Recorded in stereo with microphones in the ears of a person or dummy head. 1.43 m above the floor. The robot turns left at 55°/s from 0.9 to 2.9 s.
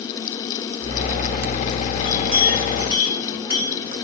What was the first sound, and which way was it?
A clink, 110° right.